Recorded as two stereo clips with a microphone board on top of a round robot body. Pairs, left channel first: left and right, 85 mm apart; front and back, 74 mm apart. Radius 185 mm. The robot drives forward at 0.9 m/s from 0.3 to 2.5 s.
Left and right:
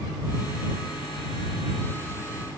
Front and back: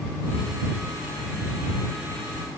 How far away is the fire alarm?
I don't hear a fire alarm.